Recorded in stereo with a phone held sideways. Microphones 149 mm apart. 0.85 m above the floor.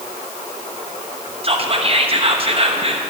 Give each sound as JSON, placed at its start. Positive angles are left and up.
{"t": 1.4, "sound": "whispering", "side_deg": -40, "distance_m": 0.9}